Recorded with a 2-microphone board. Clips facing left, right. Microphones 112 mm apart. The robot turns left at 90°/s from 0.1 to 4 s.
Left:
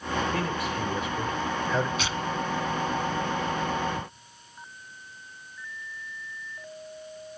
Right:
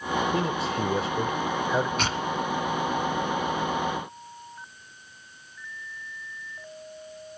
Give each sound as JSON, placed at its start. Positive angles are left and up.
{"t": 0.3, "sound": "a man speaking", "side_deg": -20, "distance_m": 1.1}
{"t": 2.0, "sound": "tearing paper", "side_deg": -55, "distance_m": 0.7}